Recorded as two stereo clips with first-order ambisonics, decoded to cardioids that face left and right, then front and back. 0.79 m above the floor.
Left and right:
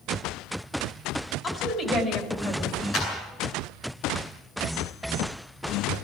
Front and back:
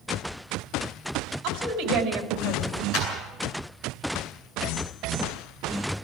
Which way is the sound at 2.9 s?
40° left.